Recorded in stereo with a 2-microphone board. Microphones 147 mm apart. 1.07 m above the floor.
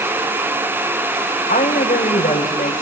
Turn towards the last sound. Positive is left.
turn(degrees=70)  # may be behind; listen again after turning